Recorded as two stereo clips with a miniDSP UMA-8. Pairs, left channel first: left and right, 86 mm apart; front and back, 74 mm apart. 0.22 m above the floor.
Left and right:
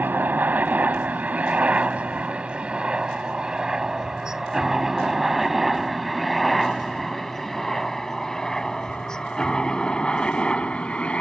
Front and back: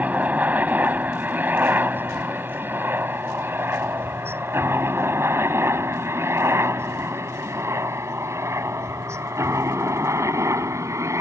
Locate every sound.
0.0 s a helicopter: 135° right; by 11.2 s 160° left